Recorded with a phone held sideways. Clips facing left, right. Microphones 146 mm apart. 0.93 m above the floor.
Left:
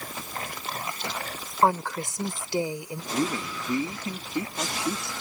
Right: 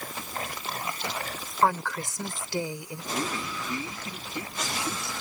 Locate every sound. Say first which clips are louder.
1.6 s a woman speaking: left 2 dB; 20° left (ahead or behind)
3.1 s a man speaking: left 4 dB; 30° left (ahead or behind)